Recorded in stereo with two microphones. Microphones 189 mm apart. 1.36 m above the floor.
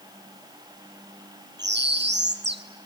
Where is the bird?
65° right (ahead or behind), 1.1 m.